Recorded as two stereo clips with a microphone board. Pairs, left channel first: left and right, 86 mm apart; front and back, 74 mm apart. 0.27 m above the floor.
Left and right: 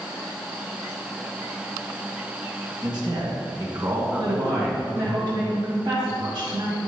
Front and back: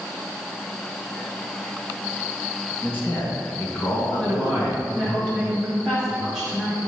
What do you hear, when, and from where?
2.8 s a man speaking: 60° right, 3 m; by 4.8 s 5° left, 1.7 m
4.2 s a woman speaking: 65° right, 2.5 m